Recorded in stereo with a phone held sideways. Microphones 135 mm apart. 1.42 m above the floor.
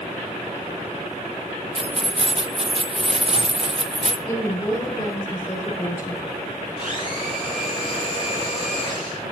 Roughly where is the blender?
Left.